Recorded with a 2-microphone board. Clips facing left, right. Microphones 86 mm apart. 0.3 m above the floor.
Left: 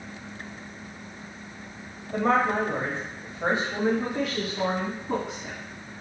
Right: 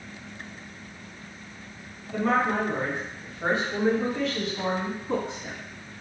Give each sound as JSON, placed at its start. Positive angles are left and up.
{"t": 2.1, "sound": "a woman speaking", "side_deg": 35, "distance_m": 1.1}